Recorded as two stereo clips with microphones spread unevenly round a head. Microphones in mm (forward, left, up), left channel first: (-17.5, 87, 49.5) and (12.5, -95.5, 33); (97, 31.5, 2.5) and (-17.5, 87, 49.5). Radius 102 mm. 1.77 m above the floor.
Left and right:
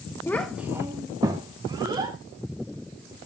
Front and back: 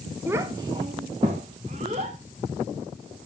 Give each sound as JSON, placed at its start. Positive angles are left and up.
{"t": 0.3, "sound": "a child speaking", "azimuth_deg": 160, "distance_m": 0.6}